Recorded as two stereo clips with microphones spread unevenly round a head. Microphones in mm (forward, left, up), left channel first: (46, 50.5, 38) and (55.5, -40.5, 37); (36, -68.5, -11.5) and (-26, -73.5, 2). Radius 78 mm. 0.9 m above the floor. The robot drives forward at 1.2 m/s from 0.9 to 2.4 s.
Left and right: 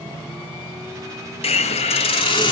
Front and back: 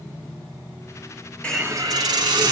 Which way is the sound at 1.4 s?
85° left.